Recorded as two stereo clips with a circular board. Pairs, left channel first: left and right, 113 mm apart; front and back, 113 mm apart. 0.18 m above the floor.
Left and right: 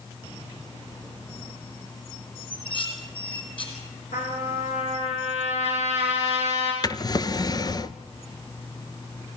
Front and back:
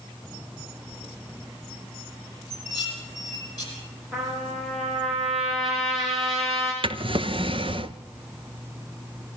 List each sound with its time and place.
2.5 s dishes clattering: 50° left, 5.5 m
4.1 s a trumpet: 90° left, 6.5 m
6.8 s a drawer: 145° left, 0.7 m